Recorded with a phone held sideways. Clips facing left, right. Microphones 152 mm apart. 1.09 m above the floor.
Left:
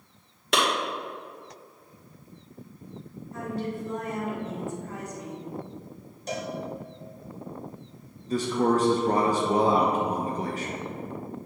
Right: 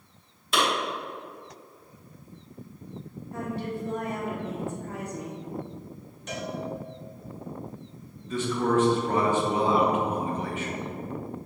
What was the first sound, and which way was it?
A clap, 75° left (ahead or behind).